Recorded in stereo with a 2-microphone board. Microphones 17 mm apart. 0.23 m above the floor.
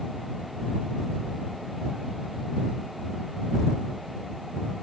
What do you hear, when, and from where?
Only background noise.